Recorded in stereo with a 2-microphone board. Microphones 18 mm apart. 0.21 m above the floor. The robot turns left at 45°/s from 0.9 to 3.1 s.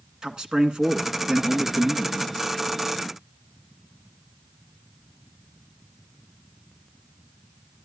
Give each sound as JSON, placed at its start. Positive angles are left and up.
{"t": 0.2, "sound": "a man speaking", "azimuth_deg": -85, "distance_m": 1.9}